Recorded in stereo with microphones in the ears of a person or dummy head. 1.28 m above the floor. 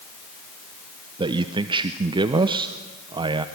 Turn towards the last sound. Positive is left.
turn(degrees=-25)  # may be behind; listen again after turning